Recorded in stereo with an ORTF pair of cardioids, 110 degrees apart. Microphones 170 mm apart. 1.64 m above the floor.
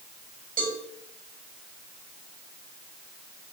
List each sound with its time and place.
0.6 s a cowbell: 55° right, 7.5 m